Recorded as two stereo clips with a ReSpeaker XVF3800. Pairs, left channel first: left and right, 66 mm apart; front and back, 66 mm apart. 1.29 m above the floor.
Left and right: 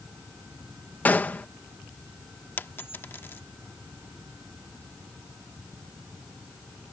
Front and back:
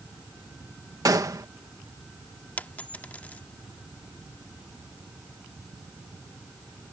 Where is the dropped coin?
50° left.